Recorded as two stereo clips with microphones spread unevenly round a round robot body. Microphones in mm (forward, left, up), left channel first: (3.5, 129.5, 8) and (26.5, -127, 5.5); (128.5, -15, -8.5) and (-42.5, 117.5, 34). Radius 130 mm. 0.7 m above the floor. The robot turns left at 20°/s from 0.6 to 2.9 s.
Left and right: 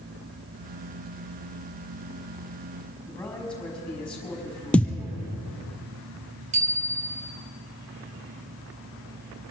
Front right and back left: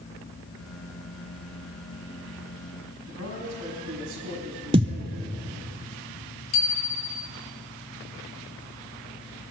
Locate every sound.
3.0 s a man speaking: straight behind, 4.5 m
4.7 s a thud: straight behind, 0.8 m
6.5 s a bicycle bell: 20° right, 2.5 m